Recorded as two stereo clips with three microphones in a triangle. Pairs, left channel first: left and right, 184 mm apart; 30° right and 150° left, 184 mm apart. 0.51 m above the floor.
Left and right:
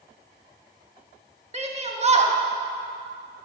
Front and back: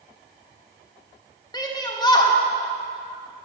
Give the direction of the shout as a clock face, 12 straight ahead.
3 o'clock.